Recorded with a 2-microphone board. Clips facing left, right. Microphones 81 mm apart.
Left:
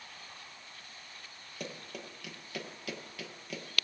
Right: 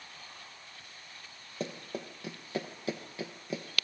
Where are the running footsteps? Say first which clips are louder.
Right 5 dB; 30° right (ahead or behind), 1.7 m; by 3.6 s 25° right (ahead or behind), 1.5 m.